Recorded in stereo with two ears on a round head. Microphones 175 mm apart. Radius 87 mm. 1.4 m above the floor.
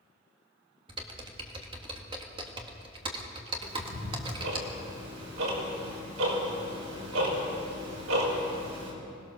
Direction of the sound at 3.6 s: 90° right.